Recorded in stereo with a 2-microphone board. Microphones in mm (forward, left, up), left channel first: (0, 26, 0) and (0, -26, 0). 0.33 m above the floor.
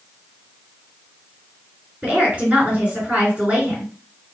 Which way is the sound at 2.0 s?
20° right (ahead or behind).